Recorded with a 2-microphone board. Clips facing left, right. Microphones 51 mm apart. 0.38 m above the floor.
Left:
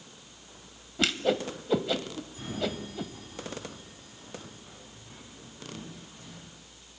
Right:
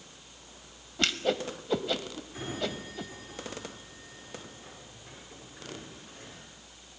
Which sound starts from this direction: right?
A sliding door, at 2.3 s.